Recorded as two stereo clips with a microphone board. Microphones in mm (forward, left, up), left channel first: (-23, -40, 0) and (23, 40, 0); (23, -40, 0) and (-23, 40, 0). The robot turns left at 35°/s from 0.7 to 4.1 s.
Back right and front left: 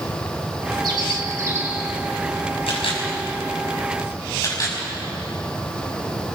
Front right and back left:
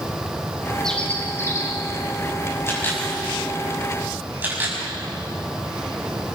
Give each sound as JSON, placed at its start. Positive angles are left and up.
{"t": 0.8, "sound": "a bird", "azimuth_deg": 25, "distance_m": 2.5}
{"t": 2.7, "sound": "a camera shutter", "azimuth_deg": -120, "distance_m": 6.0}